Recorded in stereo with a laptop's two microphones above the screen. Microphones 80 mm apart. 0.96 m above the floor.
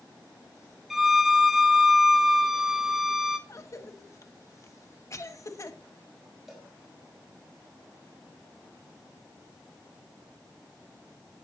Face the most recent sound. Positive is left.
turn(degrees=-5)  # may be behind; listen again after turning